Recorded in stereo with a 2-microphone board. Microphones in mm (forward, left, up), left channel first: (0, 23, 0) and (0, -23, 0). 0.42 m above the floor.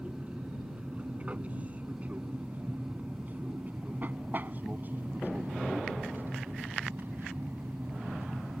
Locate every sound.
0.0 s an aircraft: 25° right (ahead or behind); by 8.6 s 55° right (ahead or behind)